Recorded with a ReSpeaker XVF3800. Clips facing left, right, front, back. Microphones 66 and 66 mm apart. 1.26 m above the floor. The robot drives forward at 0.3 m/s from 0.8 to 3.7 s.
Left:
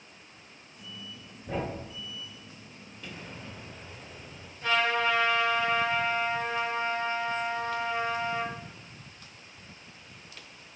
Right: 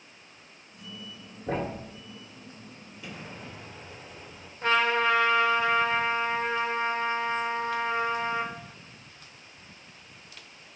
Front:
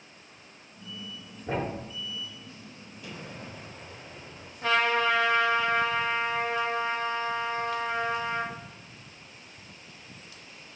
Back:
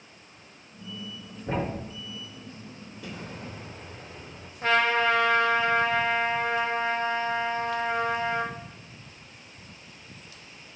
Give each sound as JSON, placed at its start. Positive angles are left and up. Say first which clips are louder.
{"t": 1.5, "sound": "a thud", "louder": "right 2 dB, back 1 dB", "azimuth_deg": -95, "distance_m": 2.0}
{"t": 3.0, "sound": "an explosion", "louder": "right 1 dB, back 2 dB", "azimuth_deg": -175, "distance_m": 1.9}
{"t": 4.6, "sound": "a trumpet", "louder": "right 2 dB, back 2 dB", "azimuth_deg": -135, "distance_m": 1.4}